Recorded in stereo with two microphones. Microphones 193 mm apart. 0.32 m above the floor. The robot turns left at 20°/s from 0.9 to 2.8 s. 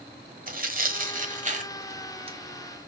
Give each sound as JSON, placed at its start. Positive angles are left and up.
{"t": 0.5, "sound": "tearing paper", "side_deg": -45, "distance_m": 1.3}